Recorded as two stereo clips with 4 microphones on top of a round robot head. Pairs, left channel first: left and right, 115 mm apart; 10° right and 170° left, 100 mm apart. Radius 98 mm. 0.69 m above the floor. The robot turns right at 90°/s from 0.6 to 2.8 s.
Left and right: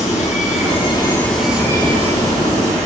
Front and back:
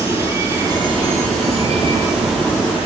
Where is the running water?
105° left, 8.5 m; by 2.9 s 55° right, 8.5 m.